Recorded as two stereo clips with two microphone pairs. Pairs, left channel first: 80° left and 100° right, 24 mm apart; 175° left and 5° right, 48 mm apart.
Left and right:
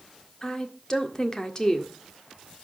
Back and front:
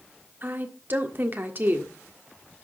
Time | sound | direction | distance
0.4 | a woman speaking | 25° left | 1.6 m